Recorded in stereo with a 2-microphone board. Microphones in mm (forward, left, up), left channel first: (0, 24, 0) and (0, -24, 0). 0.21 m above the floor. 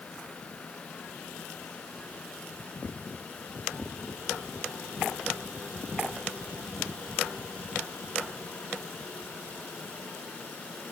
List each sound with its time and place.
Only background noise.